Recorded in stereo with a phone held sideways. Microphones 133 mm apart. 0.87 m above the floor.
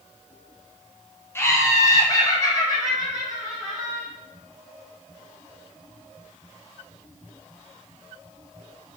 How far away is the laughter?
About 0.5 m.